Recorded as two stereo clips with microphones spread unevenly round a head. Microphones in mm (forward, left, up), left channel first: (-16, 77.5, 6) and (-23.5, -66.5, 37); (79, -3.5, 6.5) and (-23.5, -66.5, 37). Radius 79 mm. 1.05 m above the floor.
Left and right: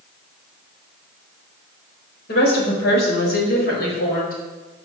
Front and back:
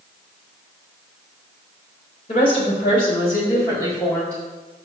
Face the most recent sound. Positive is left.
turn(degrees=110)